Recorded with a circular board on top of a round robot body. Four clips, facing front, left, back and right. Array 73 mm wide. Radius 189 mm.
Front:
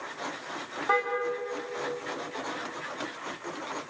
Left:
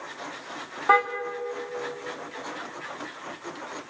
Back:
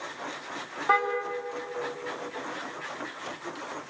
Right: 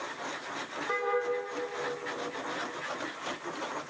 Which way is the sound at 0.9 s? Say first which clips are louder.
Left 13 dB, back 3 dB; 100° left.